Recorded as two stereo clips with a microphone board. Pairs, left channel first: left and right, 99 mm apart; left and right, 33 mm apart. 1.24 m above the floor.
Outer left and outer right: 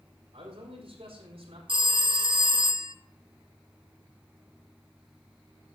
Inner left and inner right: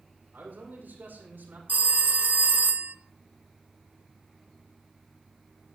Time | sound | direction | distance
0.3 | a man speaking | 85° right | 5.5 m
1.7 | a phone ringing | 55° right (ahead or behind) | 0.6 m